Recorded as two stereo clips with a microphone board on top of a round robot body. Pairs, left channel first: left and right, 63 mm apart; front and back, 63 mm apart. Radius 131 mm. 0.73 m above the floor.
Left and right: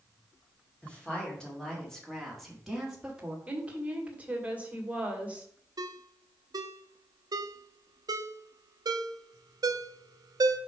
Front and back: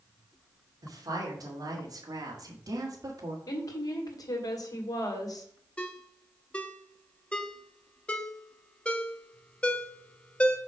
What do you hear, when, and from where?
0.8 s a woman speaking: 160° left, 2.5 m; by 3.4 s 160° right, 1.6 m
3.5 s a woman speaking: 25° right, 1.9 m
5.8 s a ringtone: 70° right, 0.6 m